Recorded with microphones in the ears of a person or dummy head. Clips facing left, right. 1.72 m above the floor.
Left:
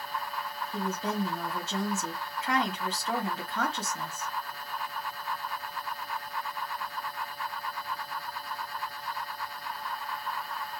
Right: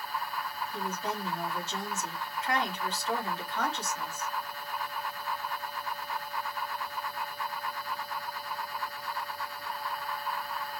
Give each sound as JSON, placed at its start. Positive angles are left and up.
{"t": 0.7, "sound": "a woman speaking", "side_deg": 65, "distance_m": 1.2}